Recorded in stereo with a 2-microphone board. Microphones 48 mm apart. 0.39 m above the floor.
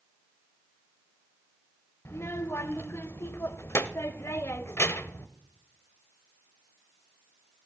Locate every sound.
2.0 s a child speaking: 60° left (ahead or behind), 0.7 m